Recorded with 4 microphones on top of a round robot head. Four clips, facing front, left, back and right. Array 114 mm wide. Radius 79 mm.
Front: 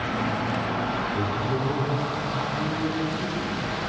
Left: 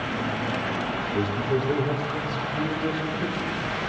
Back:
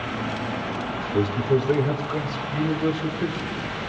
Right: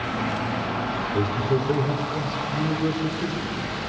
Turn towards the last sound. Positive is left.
turn(degrees=-165)